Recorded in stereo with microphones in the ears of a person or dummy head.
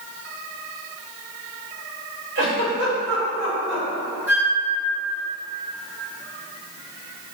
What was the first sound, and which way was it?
A giggle, 65° right (ahead or behind).